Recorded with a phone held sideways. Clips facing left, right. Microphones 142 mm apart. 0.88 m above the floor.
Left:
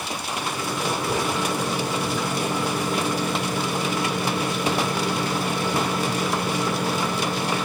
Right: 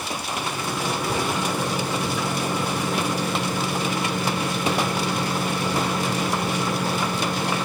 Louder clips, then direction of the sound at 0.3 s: Left 1 dB; 5° left (ahead or behind).